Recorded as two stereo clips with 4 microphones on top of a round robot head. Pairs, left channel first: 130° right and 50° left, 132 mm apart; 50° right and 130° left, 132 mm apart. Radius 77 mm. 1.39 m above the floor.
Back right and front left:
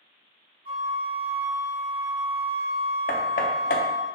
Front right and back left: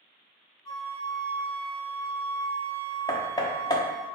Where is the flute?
10° left, 0.6 m.